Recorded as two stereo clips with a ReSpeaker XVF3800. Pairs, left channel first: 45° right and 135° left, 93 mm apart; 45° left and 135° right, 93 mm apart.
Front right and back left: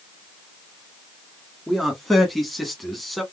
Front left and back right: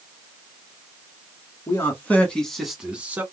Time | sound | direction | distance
1.7 | a man speaking | 45° left | 1.4 m